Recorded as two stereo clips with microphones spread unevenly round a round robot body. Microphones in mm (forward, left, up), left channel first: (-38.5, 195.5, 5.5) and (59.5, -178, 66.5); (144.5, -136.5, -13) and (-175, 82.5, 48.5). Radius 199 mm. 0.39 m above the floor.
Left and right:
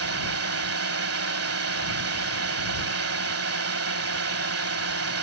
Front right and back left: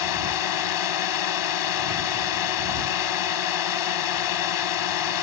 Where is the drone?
20° right.